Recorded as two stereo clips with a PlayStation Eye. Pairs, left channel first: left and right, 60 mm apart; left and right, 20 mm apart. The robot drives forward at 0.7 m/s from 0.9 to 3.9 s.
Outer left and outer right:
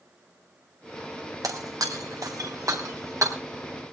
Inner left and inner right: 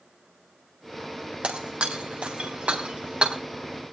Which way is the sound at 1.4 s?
90° right.